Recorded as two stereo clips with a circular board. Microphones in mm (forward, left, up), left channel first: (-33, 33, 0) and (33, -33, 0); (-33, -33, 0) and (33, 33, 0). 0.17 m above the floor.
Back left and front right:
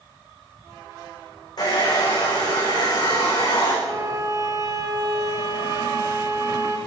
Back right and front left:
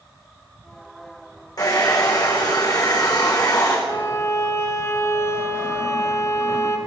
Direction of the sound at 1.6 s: Straight behind.